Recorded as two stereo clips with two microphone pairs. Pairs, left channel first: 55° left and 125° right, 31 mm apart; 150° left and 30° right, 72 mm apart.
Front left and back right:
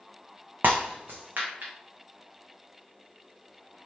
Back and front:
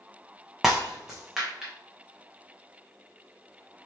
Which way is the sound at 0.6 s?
115° right.